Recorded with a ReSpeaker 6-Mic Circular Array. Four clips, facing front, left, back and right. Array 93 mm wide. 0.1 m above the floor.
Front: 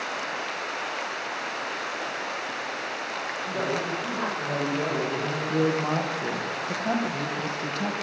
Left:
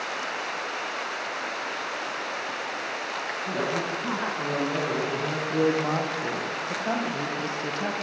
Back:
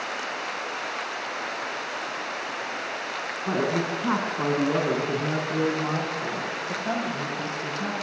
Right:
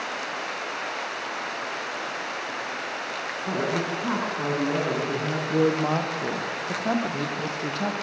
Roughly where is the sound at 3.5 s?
Behind.